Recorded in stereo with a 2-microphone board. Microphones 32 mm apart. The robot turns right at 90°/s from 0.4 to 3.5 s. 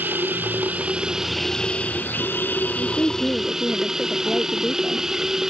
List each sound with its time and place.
0.0 s running water: 85° right; by 5.5 s 170° right
2.8 s a woman speaking: 95° left; by 5.1 s 160° left